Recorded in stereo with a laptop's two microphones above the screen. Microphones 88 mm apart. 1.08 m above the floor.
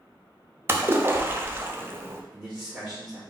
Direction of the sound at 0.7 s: 25° right (ahead or behind).